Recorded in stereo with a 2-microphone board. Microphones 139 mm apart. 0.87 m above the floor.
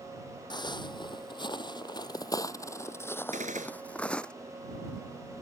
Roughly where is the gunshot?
Right.